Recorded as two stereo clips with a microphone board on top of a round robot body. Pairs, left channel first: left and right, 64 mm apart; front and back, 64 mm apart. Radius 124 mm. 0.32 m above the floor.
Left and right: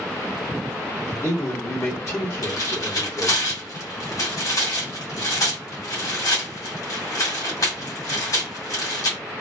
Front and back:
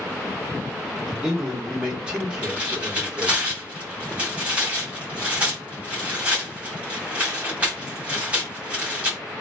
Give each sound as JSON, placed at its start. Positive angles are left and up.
{"t": 1.1, "sound": "a man speaking", "azimuth_deg": 110, "distance_m": 1.6}
{"t": 2.4, "sound": "tearing paper", "azimuth_deg": 110, "distance_m": 1.7}